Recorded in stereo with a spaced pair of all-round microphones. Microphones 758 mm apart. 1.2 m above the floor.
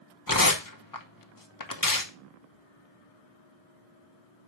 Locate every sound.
0.3 s tearing paper: 25° left (ahead or behind), 1.1 m